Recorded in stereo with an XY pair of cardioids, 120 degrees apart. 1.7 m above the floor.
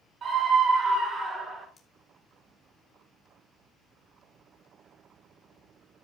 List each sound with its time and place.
0.2 s a scream: 50° right, 4.5 m; by 1.7 s 40° right, 6.5 m
1.8 s cutlery clinking: 25° left, 3 m